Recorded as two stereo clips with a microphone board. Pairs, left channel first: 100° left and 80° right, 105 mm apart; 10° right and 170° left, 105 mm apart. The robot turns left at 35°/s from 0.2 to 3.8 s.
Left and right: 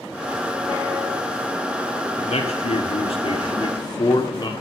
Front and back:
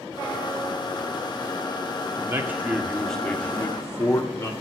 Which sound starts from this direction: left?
A man speaking, at 2.2 s.